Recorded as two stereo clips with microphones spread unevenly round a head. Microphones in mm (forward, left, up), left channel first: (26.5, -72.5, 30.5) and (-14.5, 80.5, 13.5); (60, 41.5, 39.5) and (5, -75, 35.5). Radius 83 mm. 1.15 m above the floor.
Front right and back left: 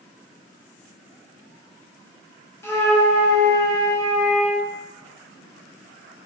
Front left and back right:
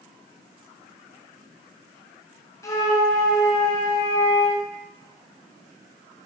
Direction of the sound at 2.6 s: Straight ahead.